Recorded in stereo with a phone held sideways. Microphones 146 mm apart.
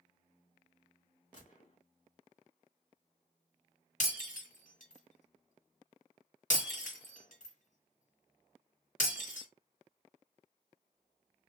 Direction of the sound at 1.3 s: 60° left (ahead or behind).